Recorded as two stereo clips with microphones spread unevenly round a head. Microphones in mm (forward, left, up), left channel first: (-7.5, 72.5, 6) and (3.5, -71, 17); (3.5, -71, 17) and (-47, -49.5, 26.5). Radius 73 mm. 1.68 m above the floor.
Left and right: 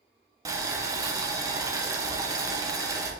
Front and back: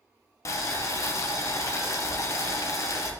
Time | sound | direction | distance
0.5 | boiling | 30° right | 0.8 m